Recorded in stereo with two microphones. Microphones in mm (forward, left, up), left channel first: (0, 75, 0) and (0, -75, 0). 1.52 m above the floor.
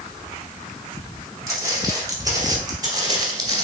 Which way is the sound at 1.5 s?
20° right (ahead or behind).